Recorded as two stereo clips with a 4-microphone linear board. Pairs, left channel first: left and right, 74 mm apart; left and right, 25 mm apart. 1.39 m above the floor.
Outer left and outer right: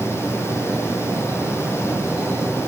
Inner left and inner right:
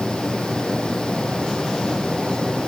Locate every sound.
Only background noise.